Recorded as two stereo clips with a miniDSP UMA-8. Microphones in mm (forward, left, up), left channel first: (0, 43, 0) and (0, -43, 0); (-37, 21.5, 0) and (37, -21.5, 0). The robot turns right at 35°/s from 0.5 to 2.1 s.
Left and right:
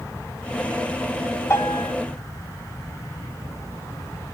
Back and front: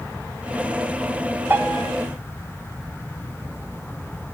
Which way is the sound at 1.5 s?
35° left.